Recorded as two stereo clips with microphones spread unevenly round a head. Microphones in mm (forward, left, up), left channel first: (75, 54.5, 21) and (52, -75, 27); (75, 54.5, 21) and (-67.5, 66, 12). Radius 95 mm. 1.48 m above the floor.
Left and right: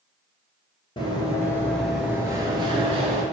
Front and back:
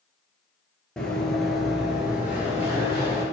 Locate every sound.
1.0 s running footsteps: 70° left, 1.7 m; by 3.2 s 110° right, 2 m